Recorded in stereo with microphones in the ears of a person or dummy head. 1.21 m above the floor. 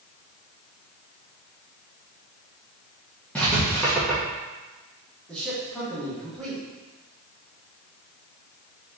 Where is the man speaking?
Centre (ahead or behind), 1.5 m.